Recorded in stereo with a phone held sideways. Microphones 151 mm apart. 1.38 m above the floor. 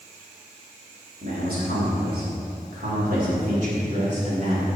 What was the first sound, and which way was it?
A man speaking, 75° right (ahead or behind).